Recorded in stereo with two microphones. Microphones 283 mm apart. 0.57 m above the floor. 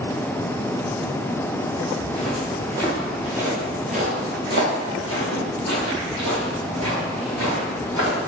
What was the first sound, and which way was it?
Footsteps, 25° left (ahead or behind).